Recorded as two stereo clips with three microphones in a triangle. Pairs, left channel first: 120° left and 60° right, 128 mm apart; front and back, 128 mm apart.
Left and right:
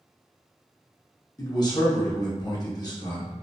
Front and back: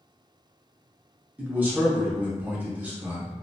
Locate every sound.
1.4 s a man speaking: 115° left, 0.7 m